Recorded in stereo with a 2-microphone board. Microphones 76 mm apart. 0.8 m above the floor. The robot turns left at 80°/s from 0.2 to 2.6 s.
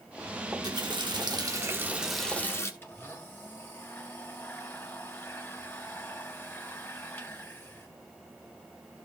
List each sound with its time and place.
0.5 s a running tap: 50° right, 1.3 m; by 2.7 s 145° left, 1.3 m
2.8 s a blender: 30° left (ahead or behind), 2.5 m